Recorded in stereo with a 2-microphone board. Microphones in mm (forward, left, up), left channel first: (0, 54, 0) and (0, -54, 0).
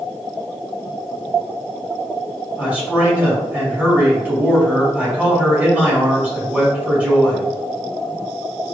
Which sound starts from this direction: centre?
A man speaking, at 2.6 s.